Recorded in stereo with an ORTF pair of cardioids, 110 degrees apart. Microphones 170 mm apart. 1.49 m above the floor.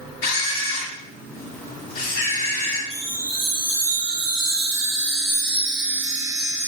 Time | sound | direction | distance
0.2 | a camera shutter | 65° left | 2 m
2.9 | a chime | 15° right | 1.7 m